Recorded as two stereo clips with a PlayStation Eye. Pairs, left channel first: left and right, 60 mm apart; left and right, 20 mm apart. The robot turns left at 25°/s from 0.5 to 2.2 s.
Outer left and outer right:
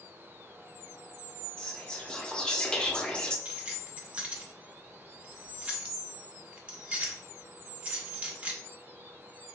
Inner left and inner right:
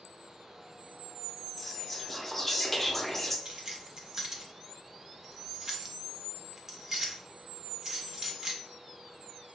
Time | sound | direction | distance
1.6 | whispering | 10° left (ahead or behind) | 0.6 m
3.5 | keys jangling | 25° right (ahead or behind) | 0.5 m